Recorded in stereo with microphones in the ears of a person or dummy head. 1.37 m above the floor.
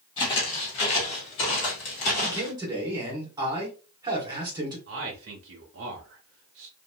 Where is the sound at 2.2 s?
20° right (ahead or behind), 1.1 m.